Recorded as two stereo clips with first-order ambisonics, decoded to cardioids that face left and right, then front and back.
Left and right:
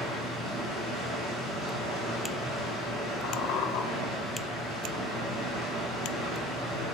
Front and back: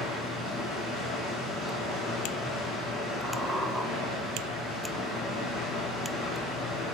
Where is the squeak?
85° left, 1.3 m.